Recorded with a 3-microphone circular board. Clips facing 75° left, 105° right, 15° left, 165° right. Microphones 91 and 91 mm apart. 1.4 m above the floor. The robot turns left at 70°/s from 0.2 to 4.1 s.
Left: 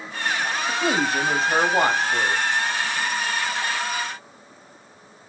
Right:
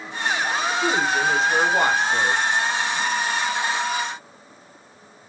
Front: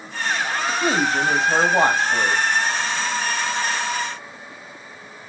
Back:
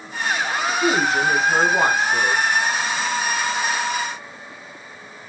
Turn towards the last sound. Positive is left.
turn(degrees=-160)